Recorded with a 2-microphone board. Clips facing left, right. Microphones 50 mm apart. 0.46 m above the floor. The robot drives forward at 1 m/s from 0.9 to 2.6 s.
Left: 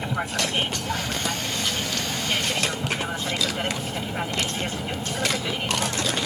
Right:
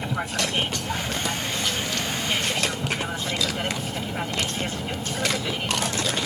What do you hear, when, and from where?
0.0 s an aircraft: 5° left (ahead or behind)